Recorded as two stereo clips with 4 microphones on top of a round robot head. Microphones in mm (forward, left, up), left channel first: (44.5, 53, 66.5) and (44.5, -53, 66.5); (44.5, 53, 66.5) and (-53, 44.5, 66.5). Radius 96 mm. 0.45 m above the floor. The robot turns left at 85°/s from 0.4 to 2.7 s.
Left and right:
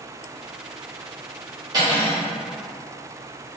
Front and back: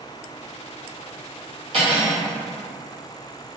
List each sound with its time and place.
1.7 s cutlery clinking: 145° right, 1.0 m; by 2.2 s 175° left, 1.0 m